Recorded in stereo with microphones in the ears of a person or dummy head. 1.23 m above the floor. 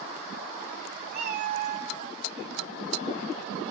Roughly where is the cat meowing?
Right.